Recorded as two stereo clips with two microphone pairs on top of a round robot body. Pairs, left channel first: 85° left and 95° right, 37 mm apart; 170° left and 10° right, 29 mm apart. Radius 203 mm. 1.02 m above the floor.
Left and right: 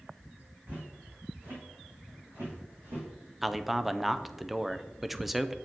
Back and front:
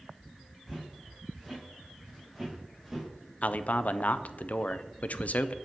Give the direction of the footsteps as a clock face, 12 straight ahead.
4 o'clock.